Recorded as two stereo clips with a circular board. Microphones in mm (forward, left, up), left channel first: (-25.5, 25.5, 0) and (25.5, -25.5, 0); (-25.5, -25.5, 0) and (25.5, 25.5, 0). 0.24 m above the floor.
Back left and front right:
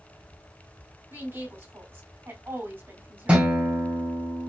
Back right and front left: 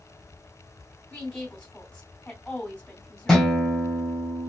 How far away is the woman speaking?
About 2.0 m.